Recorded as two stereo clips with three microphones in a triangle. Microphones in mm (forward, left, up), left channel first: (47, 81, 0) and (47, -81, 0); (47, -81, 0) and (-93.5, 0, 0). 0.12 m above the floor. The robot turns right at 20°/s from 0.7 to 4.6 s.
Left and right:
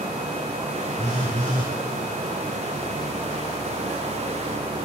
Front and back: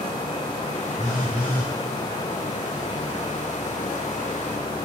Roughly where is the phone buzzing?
Behind right.